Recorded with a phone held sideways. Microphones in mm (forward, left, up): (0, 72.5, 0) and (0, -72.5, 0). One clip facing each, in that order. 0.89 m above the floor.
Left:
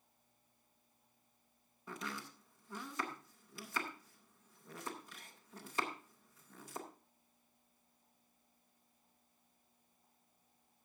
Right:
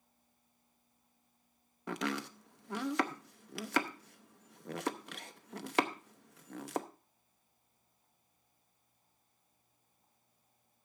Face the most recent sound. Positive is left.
turn(degrees=-70)  # may be behind; listen again after turning